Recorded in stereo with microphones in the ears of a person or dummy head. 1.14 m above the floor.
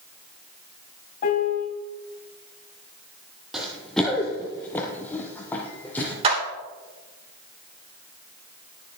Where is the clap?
30° right (ahead or behind), 3 m.